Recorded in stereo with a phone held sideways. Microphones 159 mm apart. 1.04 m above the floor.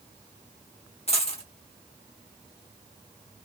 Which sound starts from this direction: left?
A dropped coin, at 1.1 s.